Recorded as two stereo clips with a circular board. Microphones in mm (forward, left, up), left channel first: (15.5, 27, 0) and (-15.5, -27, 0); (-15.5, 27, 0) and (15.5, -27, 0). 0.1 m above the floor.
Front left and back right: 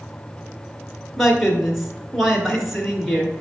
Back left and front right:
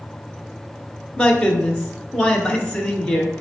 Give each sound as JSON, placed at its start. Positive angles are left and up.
{"t": 1.2, "sound": "a man speaking", "azimuth_deg": 150, "distance_m": 1.1}